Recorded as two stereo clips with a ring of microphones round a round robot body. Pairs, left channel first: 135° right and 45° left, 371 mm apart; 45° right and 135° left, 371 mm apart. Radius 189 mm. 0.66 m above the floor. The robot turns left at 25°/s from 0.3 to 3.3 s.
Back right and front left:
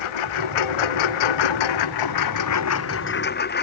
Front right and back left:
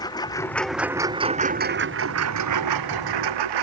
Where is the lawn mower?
125° right; by 3.6 s 160° left.